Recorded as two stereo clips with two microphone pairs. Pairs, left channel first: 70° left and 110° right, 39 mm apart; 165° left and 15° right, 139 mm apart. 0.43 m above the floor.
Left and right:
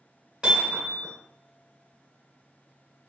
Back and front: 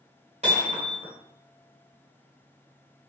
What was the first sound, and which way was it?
Hammering, 45° right.